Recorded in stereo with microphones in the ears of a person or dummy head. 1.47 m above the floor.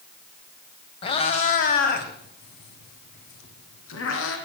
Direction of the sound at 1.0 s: 25° left (ahead or behind).